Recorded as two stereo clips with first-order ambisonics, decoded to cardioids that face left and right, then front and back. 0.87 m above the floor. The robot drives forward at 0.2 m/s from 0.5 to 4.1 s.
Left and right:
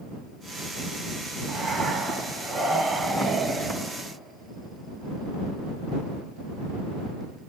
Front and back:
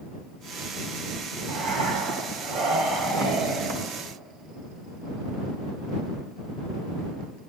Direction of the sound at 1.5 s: 170° right.